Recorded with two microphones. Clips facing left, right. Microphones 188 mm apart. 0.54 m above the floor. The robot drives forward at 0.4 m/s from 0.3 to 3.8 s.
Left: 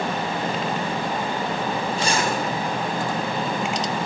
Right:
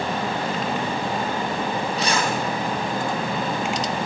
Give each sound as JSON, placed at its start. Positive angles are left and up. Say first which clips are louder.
{"t": 2.0, "sound": "a zipper", "louder": "even", "side_deg": 30, "distance_m": 4.5}